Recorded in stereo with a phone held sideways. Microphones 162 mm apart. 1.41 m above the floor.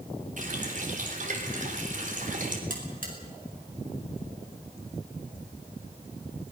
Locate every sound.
0.4 s a running tap: 50° right (ahead or behind), 3.5 m
2.7 s a buzzer: 55° right (ahead or behind), 5 m